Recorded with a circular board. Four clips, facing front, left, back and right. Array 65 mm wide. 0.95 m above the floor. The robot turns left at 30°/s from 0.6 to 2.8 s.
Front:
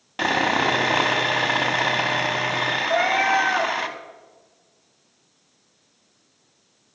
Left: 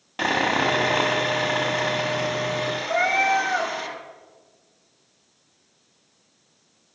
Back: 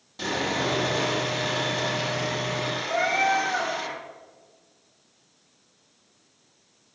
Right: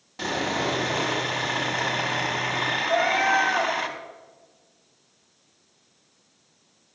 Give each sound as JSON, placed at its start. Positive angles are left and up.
{"t": 0.2, "sound": "sawing", "azimuth_deg": 40, "distance_m": 0.8}
{"t": 2.9, "sound": "a cat meowing", "azimuth_deg": 90, "distance_m": 1.4}